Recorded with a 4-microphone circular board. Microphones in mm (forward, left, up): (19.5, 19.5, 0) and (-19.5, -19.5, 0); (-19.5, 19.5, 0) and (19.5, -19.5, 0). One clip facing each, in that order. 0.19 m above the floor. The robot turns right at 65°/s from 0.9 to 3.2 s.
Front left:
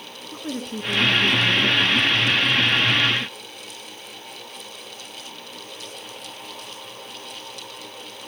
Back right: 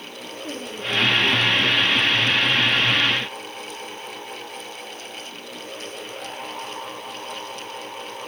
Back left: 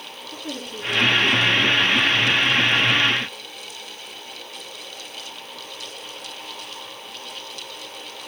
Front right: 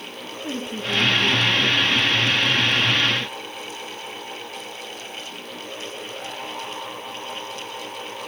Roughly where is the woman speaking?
Ahead.